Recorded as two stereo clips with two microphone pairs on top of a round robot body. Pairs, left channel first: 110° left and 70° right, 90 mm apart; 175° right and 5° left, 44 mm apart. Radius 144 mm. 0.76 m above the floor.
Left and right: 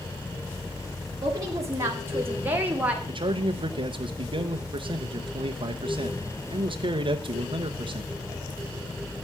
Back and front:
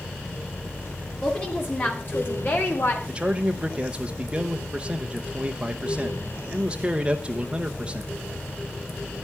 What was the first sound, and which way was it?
A woman speaking, 120° right.